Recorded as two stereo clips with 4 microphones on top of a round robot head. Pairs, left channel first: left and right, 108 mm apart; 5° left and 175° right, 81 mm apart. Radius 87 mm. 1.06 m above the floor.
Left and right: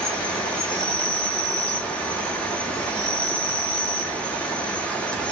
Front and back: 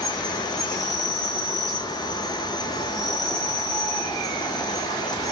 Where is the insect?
10° left, 1.5 m.